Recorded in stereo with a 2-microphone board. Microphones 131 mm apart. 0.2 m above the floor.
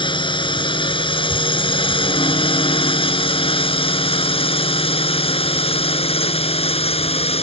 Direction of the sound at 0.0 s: 40° left (ahead or behind).